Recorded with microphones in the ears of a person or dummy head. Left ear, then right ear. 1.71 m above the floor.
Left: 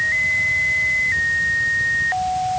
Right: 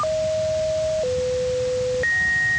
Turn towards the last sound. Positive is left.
No sound to turn to.